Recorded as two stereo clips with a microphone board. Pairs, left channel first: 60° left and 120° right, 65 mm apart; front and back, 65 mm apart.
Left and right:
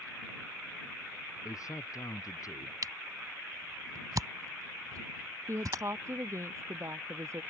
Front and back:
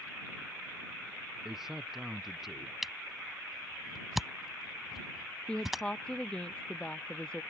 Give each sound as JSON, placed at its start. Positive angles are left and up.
{"t": 1.4, "sound": "a man speaking", "azimuth_deg": 95}
{"t": 2.8, "sound": "a camera shutter", "azimuth_deg": -95}
{"t": 5.5, "sound": "a woman speaking", "azimuth_deg": -75}